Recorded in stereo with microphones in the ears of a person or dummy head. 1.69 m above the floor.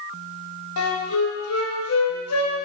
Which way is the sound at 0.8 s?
80° left.